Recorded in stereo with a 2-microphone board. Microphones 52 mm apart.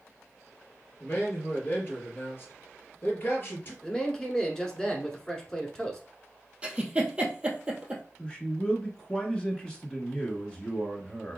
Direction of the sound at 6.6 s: 15° right (ahead or behind).